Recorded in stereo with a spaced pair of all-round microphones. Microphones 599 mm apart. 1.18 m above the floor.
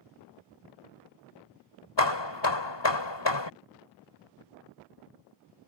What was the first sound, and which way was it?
Hammering, 45° left (ahead or behind).